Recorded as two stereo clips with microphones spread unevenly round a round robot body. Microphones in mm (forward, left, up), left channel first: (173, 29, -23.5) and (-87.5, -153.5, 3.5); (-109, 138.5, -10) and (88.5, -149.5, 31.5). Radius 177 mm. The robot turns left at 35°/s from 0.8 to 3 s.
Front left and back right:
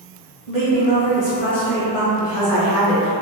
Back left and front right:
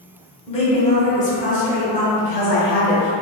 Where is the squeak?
No squeak in this recording.